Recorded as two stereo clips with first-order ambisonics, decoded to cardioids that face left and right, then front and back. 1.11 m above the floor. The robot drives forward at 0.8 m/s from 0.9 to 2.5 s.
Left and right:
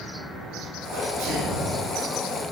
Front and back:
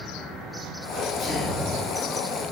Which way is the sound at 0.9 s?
70° right.